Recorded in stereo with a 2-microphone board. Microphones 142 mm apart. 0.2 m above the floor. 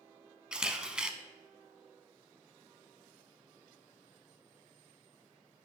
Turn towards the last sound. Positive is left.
turn(degrees=-5)  # may be behind; listen again after turning